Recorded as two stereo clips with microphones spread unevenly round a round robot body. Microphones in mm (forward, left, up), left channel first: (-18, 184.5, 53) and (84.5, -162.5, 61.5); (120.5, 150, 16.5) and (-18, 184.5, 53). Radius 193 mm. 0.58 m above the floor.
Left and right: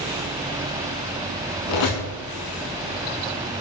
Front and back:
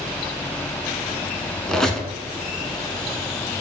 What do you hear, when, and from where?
1.7 s a squeak: 85° left, 0.7 m